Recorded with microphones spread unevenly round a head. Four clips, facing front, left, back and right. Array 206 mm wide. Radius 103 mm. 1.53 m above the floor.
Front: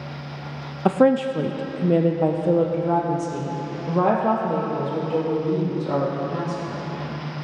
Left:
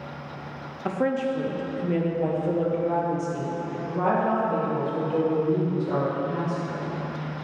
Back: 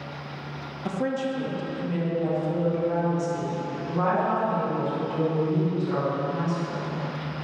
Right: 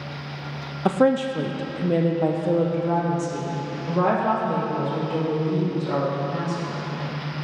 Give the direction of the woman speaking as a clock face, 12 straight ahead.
1 o'clock.